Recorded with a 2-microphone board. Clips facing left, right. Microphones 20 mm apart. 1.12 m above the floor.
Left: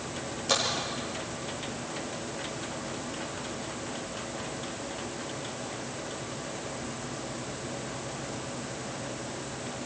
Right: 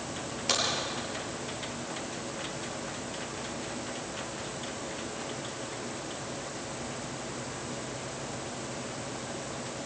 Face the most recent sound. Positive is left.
turn(degrees=-25)  # may be behind; listen again after turning